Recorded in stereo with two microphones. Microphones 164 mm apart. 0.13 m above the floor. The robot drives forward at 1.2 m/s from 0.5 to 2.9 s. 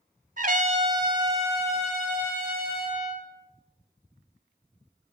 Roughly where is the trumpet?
Right.